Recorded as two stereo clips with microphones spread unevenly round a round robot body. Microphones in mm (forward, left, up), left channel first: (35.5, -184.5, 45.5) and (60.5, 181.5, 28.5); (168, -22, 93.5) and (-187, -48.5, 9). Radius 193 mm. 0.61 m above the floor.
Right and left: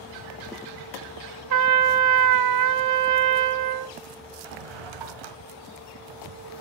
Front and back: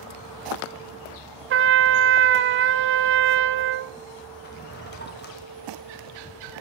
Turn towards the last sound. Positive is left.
turn(degrees=70)